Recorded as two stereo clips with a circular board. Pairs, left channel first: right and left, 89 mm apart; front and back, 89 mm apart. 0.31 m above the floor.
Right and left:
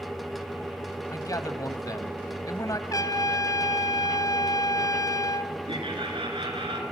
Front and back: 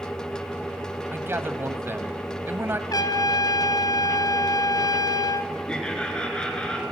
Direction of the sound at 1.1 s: 125° right.